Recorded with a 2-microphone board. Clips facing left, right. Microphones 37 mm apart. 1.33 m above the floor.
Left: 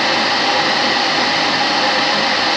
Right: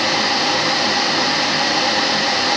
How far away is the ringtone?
I don't hear a ringtone.